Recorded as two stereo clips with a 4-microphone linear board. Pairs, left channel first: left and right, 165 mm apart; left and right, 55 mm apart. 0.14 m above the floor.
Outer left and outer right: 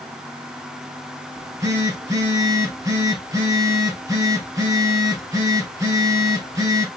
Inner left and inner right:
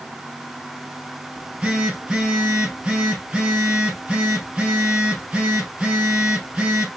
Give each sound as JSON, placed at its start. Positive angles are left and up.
{"t": 1.4, "sound": "a phone buzzing", "side_deg": -20, "distance_m": 1.7}